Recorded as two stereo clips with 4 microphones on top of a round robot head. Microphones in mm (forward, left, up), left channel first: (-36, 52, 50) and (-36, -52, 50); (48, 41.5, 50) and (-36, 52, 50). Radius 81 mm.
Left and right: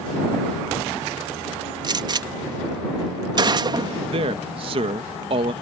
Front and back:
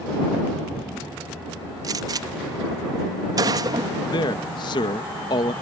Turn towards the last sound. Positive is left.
turn(degrees=-50)